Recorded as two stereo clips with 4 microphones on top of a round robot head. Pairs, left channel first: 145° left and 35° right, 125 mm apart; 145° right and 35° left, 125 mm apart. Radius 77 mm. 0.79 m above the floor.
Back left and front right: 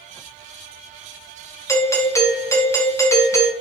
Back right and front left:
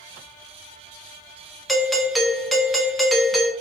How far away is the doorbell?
About 0.8 m.